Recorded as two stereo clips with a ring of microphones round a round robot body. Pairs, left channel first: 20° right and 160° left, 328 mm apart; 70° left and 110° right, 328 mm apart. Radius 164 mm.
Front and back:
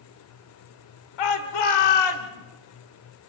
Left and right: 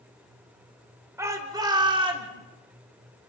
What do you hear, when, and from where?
1.2 s a shout: 30° right, 2.5 m; by 2.3 s 40° right, 3 m